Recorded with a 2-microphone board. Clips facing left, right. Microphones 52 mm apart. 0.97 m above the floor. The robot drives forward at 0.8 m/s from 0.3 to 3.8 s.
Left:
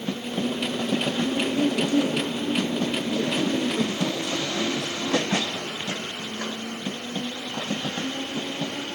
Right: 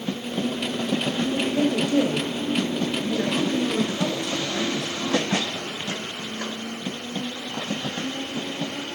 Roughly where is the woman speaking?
Right.